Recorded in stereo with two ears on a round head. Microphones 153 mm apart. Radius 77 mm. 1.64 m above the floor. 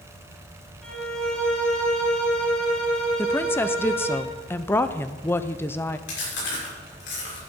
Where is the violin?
5° left (ahead or behind), 5.5 m.